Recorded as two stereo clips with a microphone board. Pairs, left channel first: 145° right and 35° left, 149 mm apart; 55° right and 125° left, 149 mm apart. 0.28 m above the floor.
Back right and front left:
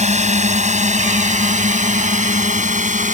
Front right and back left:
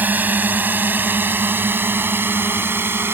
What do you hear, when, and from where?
0.0 s a drone: 50° left